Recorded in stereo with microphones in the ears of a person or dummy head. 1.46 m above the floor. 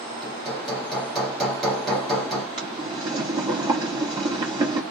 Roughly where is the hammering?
Centre.